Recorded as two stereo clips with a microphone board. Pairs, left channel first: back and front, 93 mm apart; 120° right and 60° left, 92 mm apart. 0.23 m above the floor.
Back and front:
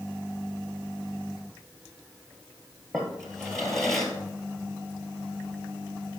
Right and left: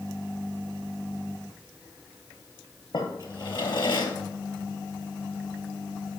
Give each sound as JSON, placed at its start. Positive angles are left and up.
{"t": 2.9, "sound": "a drawer", "azimuth_deg": -95, "distance_m": 1.8}